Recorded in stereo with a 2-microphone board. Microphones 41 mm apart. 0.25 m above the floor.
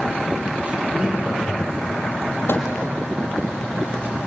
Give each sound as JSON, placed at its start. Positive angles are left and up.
{"t": 0.7, "sound": "laughter", "side_deg": -30, "distance_m": 6.0}
{"t": 2.5, "sound": "a microwave", "side_deg": 70, "distance_m": 5.5}